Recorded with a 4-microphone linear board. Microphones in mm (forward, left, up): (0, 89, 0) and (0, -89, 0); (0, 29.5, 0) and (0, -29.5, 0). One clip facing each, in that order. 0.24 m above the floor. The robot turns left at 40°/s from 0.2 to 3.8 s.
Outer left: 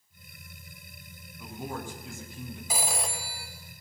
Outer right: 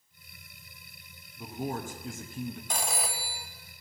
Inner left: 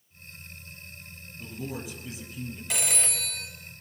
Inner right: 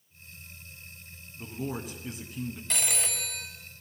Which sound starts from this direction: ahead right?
A man speaking, at 1.4 s.